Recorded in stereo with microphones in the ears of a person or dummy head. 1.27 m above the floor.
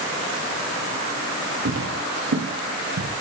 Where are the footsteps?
75° right (ahead or behind), 8.5 m; by 3.1 s 80° right, 8.5 m.